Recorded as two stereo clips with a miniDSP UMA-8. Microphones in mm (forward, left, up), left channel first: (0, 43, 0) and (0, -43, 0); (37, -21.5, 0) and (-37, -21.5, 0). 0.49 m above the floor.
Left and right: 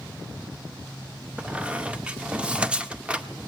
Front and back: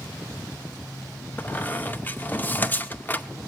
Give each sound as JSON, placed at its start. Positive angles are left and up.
{"t": 1.4, "sound": "a squeak", "azimuth_deg": -30, "distance_m": 0.6}